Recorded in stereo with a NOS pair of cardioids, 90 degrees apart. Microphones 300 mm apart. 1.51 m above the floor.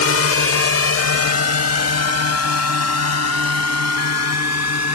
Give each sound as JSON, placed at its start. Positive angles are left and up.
{"t": 0.0, "sound": "a drone", "azimuth_deg": 50}